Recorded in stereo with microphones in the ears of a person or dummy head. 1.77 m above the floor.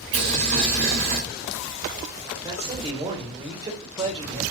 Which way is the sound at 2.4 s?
30° right (ahead or behind).